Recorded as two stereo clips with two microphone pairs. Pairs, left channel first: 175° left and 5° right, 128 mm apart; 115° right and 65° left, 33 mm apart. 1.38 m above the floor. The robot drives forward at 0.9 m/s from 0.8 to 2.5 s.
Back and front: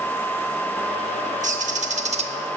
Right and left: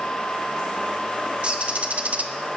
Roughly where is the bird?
Ahead.